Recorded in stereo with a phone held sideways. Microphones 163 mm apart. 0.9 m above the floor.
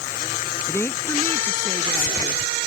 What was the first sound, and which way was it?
A woman speaking, 10° left (ahead or behind).